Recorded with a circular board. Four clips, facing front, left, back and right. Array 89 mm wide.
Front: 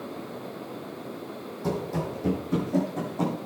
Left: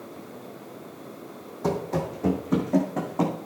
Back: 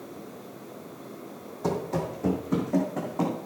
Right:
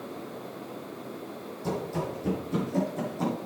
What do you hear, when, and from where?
1.6 s running footsteps: 120° left, 3 m; by 3.4 s 110° left, 4 m